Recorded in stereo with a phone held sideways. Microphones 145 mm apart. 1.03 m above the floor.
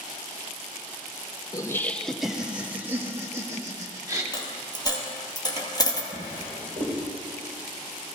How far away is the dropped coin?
About 2 m.